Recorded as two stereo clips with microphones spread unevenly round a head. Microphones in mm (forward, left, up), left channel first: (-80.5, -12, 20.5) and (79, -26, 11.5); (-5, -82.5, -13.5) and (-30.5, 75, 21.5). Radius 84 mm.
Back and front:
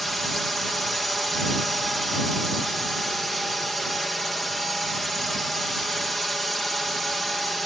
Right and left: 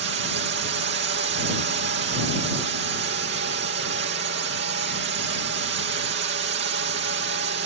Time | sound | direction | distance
0.0 | a drone | 85° left | ?